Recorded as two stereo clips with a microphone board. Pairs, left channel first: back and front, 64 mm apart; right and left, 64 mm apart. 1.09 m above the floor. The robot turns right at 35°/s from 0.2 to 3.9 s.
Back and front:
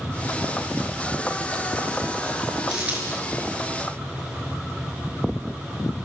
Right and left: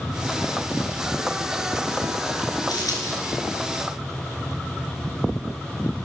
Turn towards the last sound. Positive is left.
turn(degrees=-35)